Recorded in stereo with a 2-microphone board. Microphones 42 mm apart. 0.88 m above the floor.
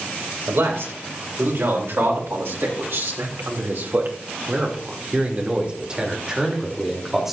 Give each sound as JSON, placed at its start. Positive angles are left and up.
{"t": 0.5, "sound": "a man speaking", "side_deg": -75, "distance_m": 3.5}